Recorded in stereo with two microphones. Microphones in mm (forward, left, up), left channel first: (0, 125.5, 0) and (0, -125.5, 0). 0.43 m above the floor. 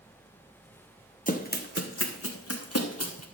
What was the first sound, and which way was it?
Running footsteps, 30° left (ahead or behind).